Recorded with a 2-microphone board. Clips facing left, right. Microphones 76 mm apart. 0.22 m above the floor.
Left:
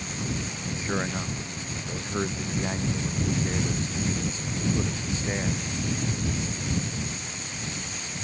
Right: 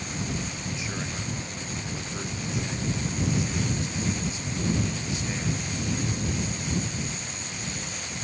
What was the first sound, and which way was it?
A man speaking, 35° left (ahead or behind).